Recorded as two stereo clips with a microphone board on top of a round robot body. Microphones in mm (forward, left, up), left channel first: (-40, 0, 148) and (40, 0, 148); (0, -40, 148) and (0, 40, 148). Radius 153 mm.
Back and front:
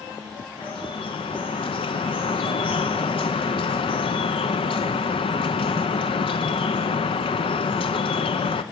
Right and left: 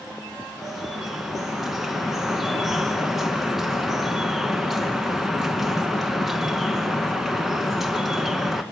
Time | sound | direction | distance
0.6 | dripping | 175° left | 1.0 m